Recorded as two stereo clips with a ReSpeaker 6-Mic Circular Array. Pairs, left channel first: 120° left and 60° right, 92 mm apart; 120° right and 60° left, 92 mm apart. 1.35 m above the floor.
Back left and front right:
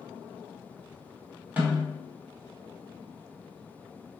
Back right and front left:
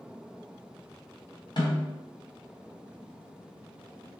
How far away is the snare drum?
About 1.9 m.